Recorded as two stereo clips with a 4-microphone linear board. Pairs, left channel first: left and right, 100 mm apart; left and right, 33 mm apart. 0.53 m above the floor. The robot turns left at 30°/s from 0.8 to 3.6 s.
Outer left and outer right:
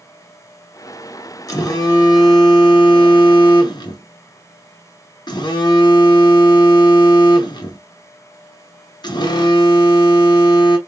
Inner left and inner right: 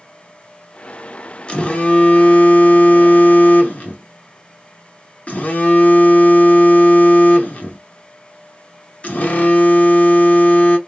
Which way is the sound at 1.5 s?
135° left.